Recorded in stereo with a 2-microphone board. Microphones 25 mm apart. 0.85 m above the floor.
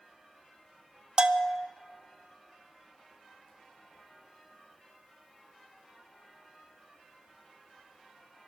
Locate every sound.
1.2 s a bell: 35° right (ahead or behind), 0.6 m